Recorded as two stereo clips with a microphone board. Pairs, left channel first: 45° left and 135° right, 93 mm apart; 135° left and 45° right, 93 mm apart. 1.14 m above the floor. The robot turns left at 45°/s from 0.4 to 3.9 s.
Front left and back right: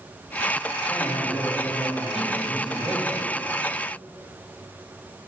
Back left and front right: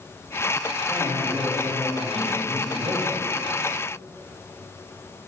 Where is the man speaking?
15° left, 1.7 m; by 3.2 s 90° right, 1.7 m.